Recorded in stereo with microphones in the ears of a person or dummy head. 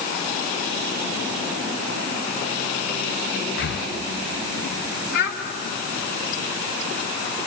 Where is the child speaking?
70° left (ahead or behind), 3.5 m.